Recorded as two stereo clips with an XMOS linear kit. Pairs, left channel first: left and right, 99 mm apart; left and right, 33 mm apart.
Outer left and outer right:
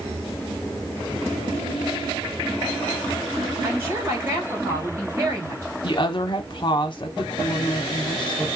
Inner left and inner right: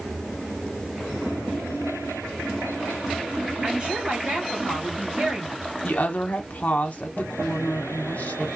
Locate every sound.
3.6 s a woman speaking: 30° right (ahead or behind), 2.5 m
5.8 s a woman speaking: 55° left (ahead or behind), 1.0 m